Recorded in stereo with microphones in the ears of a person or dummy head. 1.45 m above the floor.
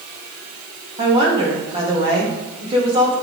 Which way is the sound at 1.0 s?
30° right (ahead or behind).